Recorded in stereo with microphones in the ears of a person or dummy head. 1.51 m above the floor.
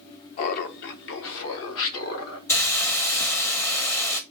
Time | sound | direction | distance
0.4 | laughter | 45° left (ahead or behind) | 0.5 m
2.5 | a hiss | 15° left (ahead or behind) | 0.7 m